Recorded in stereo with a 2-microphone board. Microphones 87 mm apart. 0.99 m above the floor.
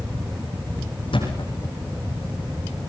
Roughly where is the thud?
Left.